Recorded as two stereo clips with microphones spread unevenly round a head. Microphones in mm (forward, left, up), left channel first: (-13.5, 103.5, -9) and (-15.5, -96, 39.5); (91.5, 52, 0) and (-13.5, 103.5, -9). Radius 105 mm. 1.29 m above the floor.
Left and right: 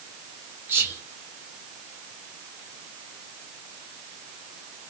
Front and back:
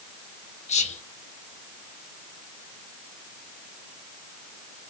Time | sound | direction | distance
0.7 | whispering | 5° right | 0.8 m